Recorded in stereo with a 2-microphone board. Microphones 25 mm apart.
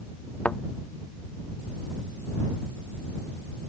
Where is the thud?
60° left (ahead or behind).